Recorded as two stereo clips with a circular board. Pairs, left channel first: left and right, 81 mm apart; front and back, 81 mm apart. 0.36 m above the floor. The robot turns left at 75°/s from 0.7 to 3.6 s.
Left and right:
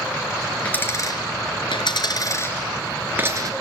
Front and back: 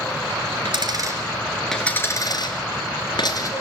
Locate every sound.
0.7 s a dropped coin: 160° left, 3 m; by 3.5 s 50° right, 3 m